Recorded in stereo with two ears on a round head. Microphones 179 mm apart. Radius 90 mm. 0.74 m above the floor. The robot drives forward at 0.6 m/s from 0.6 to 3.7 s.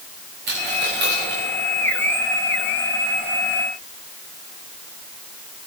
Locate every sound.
0.5 s a dropped coin: 60° right (ahead or behind), 5.5 m; by 1.4 s 55° right (ahead or behind), 6 m